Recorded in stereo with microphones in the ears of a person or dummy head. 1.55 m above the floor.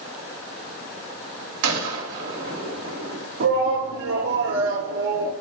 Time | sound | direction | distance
1.6 | a gunshot | 80° right | 3 m
3.4 | a shout | 80° right | 3 m